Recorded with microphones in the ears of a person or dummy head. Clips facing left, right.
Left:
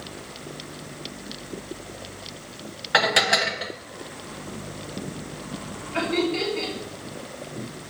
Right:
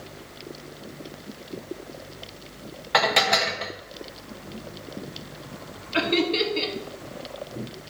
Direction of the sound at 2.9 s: 5° left (ahead or behind).